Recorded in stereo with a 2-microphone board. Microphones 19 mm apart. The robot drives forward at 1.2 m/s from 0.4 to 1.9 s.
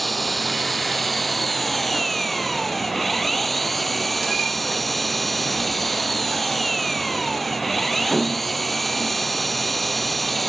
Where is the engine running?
10° left (ahead or behind).